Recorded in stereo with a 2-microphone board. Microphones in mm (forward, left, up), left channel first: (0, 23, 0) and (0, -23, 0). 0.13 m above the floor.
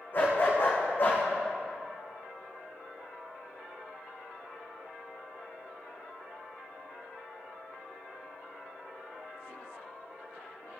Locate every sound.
0.1 s a dog barking: 45° left (ahead or behind), 4 m